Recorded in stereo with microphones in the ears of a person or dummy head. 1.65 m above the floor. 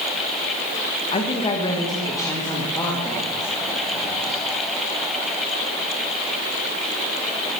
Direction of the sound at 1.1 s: 30° left (ahead or behind).